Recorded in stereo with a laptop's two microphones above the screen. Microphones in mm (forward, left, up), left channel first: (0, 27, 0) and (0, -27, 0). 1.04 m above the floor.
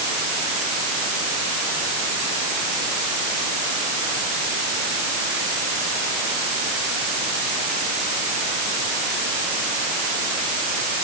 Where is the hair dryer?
No hair dryer in this recording.